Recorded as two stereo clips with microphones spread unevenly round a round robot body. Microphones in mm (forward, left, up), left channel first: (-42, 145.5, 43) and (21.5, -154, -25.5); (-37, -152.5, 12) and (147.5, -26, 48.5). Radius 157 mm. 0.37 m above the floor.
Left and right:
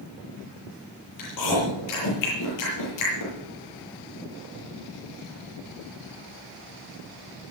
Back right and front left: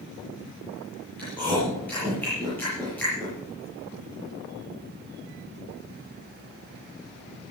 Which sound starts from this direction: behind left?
Chewing, at 1.2 s.